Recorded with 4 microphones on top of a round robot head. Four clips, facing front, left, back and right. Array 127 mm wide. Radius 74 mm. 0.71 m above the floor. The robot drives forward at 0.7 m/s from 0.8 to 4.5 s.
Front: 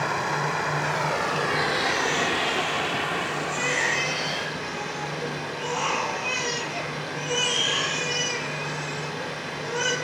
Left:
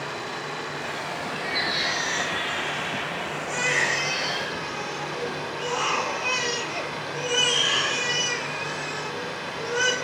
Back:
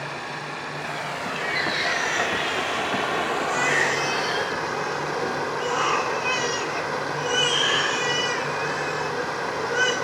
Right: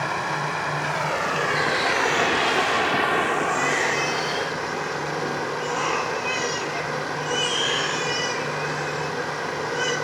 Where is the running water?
40° right, 1.6 m; by 10.0 s 140° right, 1.7 m.